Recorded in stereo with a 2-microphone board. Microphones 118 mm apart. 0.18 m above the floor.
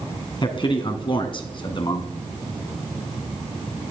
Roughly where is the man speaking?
Left.